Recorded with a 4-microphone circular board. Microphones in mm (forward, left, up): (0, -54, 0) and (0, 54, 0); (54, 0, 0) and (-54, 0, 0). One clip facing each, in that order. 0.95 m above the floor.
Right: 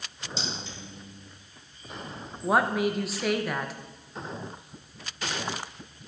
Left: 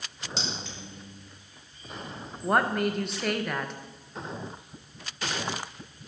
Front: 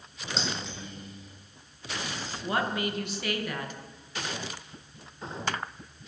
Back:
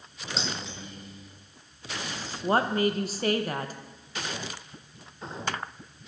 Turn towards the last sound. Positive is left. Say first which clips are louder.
# right 1 dB, back 6 dB
turn(degrees=-175)